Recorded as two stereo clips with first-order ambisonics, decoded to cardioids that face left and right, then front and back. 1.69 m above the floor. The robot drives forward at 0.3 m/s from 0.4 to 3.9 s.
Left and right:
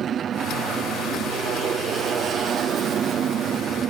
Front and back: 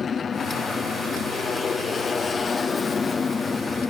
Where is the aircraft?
50° right; by 3.9 s 60° right.